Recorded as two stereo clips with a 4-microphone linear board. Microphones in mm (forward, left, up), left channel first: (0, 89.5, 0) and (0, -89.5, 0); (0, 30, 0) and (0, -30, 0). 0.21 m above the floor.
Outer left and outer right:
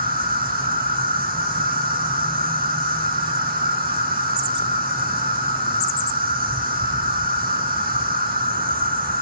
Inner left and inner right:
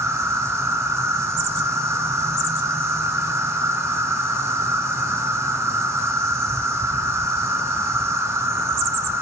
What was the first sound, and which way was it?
An insect, 55° right (ahead or behind).